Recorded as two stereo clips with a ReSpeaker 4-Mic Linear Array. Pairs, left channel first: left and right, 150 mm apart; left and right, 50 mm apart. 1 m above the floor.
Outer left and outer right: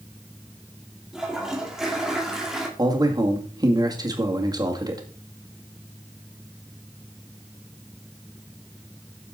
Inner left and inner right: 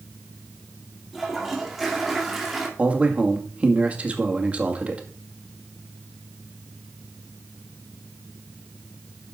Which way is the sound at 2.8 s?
25° right (ahead or behind).